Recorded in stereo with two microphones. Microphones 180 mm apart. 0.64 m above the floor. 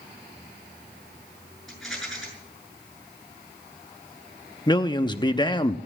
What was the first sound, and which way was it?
A rattle, centre (ahead or behind).